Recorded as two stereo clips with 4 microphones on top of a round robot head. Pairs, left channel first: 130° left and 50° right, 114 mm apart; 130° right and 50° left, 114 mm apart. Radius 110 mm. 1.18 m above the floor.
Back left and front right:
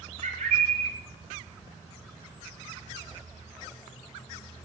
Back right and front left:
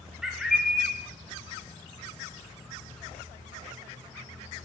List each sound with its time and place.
0.2 s a bird: 30° right, 0.9 m